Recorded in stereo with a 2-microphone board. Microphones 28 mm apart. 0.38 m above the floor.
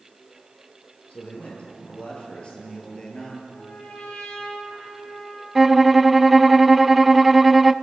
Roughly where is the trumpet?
Left.